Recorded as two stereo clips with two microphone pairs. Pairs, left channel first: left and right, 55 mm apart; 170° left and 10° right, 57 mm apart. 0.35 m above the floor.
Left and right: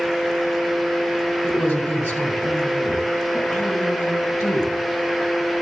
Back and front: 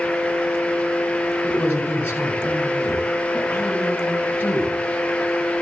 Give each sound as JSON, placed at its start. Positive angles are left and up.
{"t": 1.4, "sound": "a man speaking", "azimuth_deg": 115, "distance_m": 4.0}